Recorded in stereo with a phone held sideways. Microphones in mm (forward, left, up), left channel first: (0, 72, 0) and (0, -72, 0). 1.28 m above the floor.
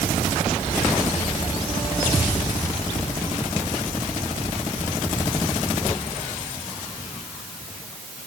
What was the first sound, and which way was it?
Only background noise.